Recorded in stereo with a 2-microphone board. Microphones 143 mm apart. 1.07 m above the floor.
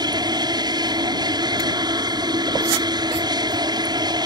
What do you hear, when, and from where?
0.0 s an aircraft: 30° right (ahead or behind)